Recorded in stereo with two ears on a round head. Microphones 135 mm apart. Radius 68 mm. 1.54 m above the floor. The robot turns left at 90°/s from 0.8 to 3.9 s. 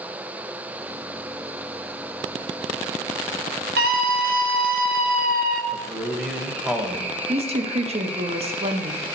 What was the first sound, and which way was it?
A scream, 75° right (ahead or behind).